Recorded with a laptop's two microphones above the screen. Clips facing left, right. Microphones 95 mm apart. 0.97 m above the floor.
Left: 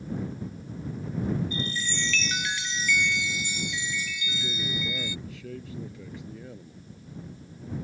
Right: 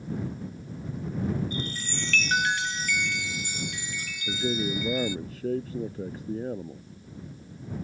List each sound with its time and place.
1.5 s a chime: 55° right (ahead or behind)
4.3 s a man speaking: 40° right (ahead or behind)